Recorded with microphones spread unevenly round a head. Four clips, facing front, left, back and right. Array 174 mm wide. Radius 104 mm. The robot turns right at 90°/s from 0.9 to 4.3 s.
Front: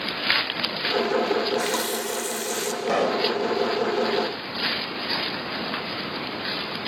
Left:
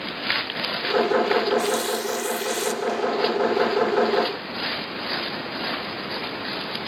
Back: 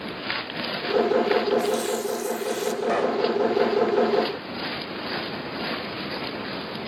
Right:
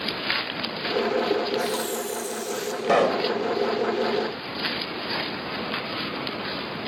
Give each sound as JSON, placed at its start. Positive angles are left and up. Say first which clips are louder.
{"t": 1.3, "sound": "a running tap", "louder": "left 3 dB, back 2 dB", "azimuth_deg": -40, "distance_m": 2.0}
{"t": 2.8, "sound": "a pop", "louder": "right 4 dB, front 1 dB", "azimuth_deg": -75, "distance_m": 2.0}